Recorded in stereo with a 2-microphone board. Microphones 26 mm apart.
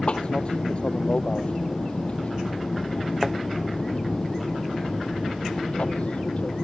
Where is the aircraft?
40° left (ahead or behind); by 6.6 s 50° left (ahead or behind).